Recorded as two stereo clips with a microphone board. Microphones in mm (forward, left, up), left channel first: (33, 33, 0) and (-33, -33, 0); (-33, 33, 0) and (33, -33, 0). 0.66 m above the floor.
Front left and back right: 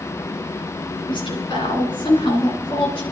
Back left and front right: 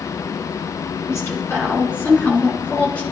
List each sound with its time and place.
1.1 s a woman speaking: 75° left, 8 m; by 3.0 s 55° left, 7.5 m